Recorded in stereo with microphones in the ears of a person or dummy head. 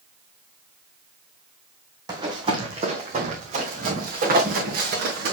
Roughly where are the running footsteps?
Right.